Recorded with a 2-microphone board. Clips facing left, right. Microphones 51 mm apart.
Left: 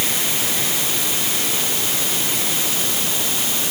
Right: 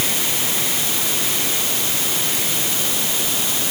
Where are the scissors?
I don't hear scissors.